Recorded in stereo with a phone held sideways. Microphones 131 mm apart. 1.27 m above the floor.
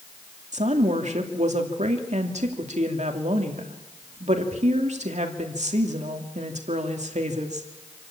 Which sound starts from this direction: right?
A woman speaking, at 0.5 s.